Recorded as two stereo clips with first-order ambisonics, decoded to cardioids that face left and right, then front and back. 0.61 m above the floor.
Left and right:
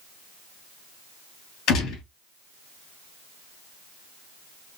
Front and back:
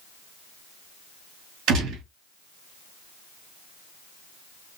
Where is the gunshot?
130° left, 2.5 m.